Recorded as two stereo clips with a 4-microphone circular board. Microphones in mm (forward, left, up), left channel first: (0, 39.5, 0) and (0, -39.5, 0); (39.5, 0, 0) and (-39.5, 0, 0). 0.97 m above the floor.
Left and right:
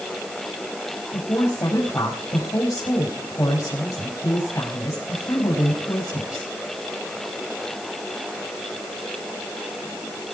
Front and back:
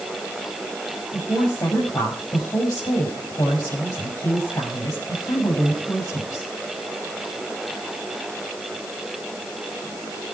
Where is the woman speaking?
40° left, 6.5 m.